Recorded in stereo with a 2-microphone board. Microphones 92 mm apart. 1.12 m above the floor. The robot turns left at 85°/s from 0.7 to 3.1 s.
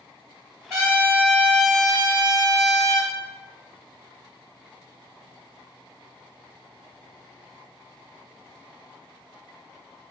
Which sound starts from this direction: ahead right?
A trumpet, at 0.7 s.